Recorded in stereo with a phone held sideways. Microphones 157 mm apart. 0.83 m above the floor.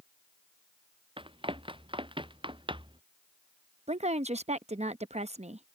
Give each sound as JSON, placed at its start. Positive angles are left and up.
{"t": 1.2, "sound": "running footsteps", "side_deg": -35}
{"t": 3.9, "sound": "a woman speaking", "side_deg": -45}